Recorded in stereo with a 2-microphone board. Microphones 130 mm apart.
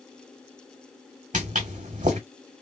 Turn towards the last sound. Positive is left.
turn(degrees=-75)  # may be behind; listen again after turning